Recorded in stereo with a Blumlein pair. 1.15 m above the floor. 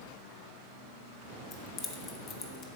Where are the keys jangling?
30° left, 0.8 m.